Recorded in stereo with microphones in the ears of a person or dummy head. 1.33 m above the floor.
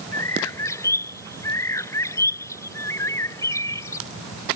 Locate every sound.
0.1 s a bird: 15° left (ahead or behind)